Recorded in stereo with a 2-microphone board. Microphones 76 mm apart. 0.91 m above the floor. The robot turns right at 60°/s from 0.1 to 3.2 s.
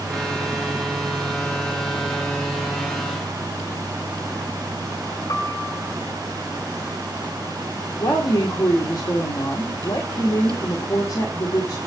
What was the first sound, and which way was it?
A piano, 70° left (ahead or behind).